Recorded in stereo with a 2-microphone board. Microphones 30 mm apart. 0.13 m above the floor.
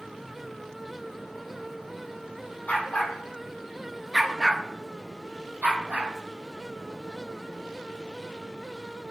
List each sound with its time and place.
2.7 s a dog barking: 65° left (ahead or behind), 1.8 m; by 6.1 s 75° right (ahead or behind), 2.5 m